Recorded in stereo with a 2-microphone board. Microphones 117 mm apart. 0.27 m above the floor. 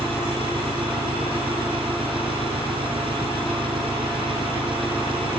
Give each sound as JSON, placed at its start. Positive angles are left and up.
{"t": 0.0, "sound": "an engine running", "side_deg": -50}